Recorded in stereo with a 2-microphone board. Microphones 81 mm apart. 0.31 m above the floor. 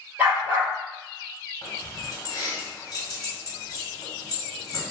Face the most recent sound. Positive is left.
turn(degrees=50)  # may be behind; listen again after turning